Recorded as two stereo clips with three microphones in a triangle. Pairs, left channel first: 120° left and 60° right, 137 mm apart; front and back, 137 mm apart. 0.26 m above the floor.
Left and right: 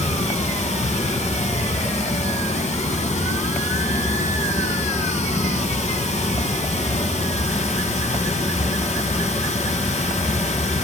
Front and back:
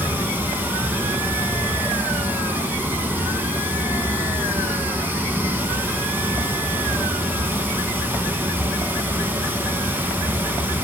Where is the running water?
105° left, 1.0 m.